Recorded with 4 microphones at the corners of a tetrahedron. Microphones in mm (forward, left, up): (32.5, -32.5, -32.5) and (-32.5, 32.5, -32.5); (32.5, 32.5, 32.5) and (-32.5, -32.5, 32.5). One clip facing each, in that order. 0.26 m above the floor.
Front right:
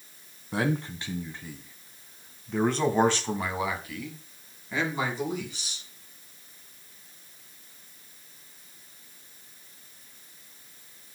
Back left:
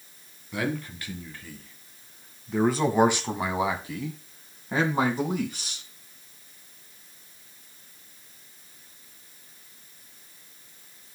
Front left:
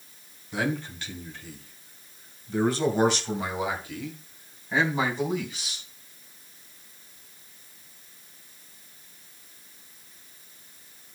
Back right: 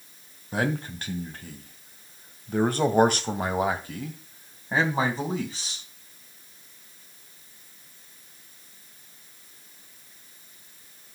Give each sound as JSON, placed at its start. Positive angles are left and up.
{"t": 0.5, "sound": "a man speaking", "azimuth_deg": -95, "distance_m": 2.5}